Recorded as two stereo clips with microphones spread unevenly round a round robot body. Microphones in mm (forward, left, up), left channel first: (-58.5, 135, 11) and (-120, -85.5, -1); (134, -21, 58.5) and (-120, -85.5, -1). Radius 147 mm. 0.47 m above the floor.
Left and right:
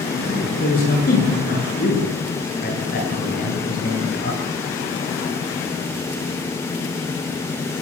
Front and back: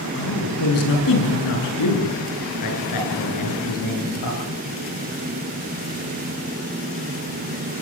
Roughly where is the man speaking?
Ahead.